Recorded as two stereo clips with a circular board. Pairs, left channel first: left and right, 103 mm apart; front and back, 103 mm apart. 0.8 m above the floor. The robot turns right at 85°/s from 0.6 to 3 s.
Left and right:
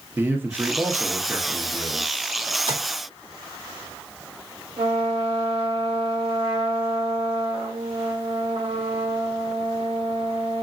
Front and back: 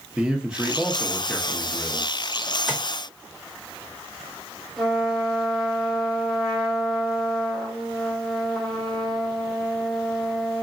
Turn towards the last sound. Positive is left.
turn(degrees=-90)